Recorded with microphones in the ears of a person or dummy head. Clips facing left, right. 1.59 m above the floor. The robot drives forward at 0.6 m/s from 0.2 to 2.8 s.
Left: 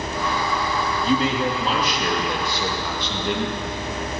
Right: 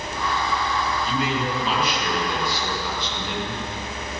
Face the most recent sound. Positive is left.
turn(degrees=55)  # may be behind; listen again after turning